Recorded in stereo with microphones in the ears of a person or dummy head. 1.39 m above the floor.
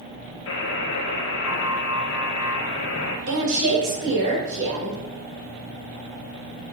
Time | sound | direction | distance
0.5 | a buzzer | 65° left (ahead or behind) | 1.4 m
3.3 | a woman speaking | 70° right (ahead or behind) | 1.8 m